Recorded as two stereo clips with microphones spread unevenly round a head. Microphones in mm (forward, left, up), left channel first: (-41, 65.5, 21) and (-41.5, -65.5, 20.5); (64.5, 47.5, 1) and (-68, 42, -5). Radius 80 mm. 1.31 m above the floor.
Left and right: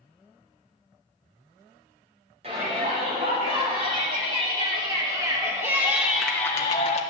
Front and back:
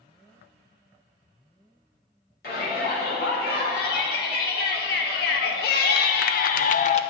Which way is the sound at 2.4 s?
35° right.